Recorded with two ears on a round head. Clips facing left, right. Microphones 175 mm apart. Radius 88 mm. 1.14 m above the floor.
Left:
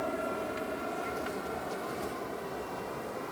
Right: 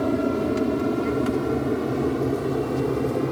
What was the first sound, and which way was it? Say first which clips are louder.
An aircraft: right 12 dB; 55° right (ahead or behind).